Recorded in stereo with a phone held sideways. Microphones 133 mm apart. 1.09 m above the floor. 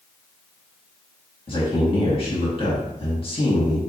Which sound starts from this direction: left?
A man speaking, at 1.5 s.